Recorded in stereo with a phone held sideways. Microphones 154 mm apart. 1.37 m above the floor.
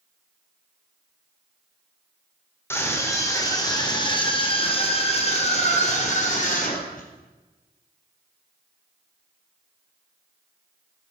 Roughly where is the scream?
Centre.